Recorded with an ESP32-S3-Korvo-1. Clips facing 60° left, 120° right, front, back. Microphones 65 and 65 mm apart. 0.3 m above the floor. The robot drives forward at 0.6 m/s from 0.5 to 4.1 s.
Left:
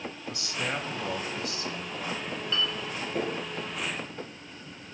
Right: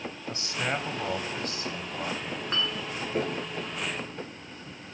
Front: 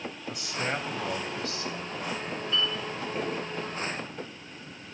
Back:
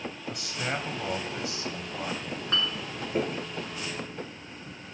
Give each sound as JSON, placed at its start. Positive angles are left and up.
{"t": 0.3, "sound": "a man speaking", "azimuth_deg": -90, "distance_m": 1.6}
{"t": 2.2, "sound": "a clink", "azimuth_deg": -160, "distance_m": 2.0}